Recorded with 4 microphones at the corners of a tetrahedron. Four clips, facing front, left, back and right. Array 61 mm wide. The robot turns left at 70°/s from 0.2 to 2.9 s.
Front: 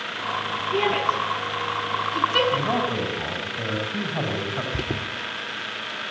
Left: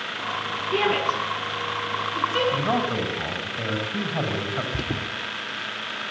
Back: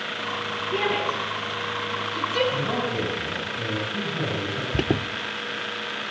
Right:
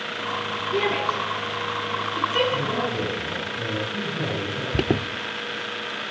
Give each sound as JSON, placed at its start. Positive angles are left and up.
{"t": 0.7, "sound": "a shout", "azimuth_deg": 110, "distance_m": 6.5}
{"t": 2.5, "sound": "a man speaking", "azimuth_deg": 75, "distance_m": 7.0}
{"t": 4.7, "sound": "an alarm", "azimuth_deg": -120, "distance_m": 1.1}